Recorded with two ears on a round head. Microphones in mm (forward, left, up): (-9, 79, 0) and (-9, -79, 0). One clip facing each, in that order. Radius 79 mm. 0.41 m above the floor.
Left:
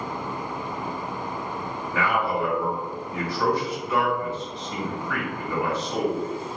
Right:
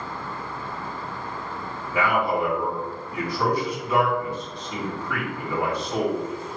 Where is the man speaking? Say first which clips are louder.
Right 2 dB; 15° right (ahead or behind), 2 m.